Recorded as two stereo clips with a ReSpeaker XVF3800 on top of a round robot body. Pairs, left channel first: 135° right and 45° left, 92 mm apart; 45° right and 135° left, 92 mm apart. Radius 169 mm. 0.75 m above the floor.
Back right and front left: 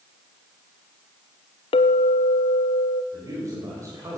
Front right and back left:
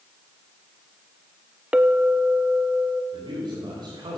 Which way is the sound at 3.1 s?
100° left.